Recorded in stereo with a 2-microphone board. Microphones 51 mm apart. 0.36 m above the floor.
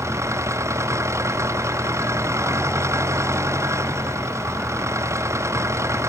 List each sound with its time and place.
0.0 s an engine running: 85° right